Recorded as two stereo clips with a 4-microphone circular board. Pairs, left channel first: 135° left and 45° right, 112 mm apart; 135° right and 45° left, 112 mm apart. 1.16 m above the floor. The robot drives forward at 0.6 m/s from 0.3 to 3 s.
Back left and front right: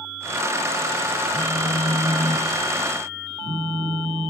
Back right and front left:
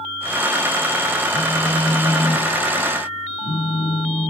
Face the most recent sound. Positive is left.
turn(degrees=-90)